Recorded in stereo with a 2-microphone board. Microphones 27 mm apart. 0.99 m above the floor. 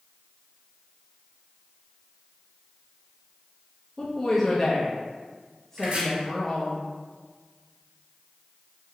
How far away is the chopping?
About 1.5 m.